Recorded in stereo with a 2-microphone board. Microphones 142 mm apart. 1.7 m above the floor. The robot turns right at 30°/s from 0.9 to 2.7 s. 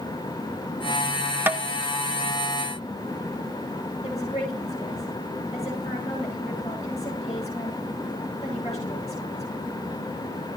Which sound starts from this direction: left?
A woman speaking, at 4.0 s.